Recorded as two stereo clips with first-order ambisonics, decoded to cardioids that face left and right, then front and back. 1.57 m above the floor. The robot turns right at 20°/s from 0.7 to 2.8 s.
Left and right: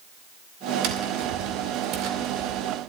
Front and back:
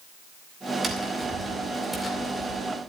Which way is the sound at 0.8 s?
105° right.